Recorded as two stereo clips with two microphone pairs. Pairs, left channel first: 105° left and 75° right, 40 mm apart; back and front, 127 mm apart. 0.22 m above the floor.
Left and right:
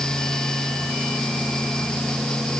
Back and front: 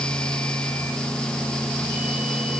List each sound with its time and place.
Only background noise.